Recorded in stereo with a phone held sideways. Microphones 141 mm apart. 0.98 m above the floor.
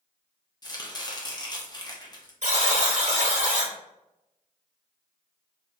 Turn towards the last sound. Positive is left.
turn(degrees=-60)  # may be behind; listen again after turning